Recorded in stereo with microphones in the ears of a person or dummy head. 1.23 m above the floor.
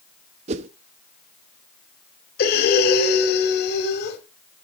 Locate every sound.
0.5 s a whoosh: 35° right (ahead or behind), 0.5 m
2.4 s breathing: 55° left (ahead or behind), 2.5 m